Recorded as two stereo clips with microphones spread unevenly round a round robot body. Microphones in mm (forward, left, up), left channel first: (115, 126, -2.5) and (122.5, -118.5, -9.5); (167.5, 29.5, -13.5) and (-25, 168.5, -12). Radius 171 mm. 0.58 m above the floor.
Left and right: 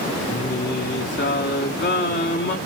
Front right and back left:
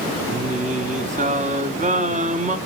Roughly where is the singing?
Left.